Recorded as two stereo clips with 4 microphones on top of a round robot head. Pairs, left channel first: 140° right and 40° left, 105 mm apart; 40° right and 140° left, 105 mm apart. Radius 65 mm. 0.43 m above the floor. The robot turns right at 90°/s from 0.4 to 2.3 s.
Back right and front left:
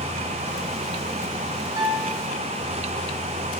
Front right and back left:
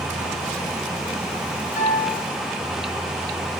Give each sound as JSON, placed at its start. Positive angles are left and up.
{"t": 1.8, "sound": "a piano", "azimuth_deg": -20, "distance_m": 2.5}